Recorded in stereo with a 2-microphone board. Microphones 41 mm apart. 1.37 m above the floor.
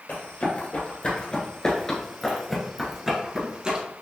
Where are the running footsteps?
45° left (ahead or behind), 1.8 m; by 3.8 s 25° right (ahead or behind), 1.5 m.